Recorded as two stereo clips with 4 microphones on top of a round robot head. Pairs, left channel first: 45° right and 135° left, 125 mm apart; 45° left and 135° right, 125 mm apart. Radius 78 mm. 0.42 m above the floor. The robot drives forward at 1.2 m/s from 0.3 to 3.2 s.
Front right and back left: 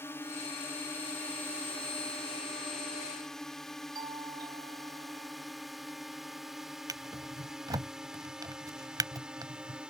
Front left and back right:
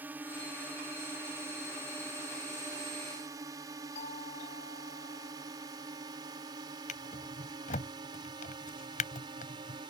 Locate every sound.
0.0 s a drone: 80° right; by 9.9 s 145° right
4.0 s a doorbell: 80° left
6.9 s a drawer: 75° left